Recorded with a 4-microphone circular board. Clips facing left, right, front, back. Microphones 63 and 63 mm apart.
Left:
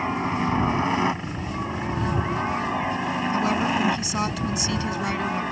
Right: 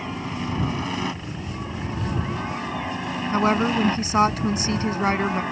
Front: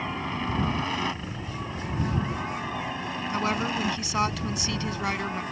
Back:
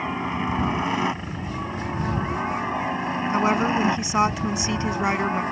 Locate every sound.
0.0 s a helicopter: 115° left; by 5.5 s straight behind
3.3 s a woman speaking: 120° right